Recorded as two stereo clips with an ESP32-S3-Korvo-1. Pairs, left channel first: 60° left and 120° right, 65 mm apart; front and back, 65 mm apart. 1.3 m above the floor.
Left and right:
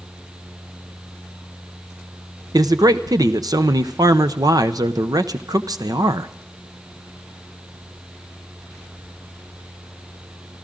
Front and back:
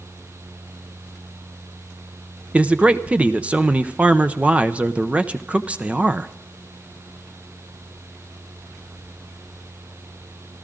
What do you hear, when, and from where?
2.5 s a man speaking: 110° right, 0.7 m